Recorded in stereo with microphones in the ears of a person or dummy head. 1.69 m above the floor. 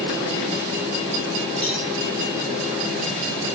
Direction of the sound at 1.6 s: 25° right (ahead or behind).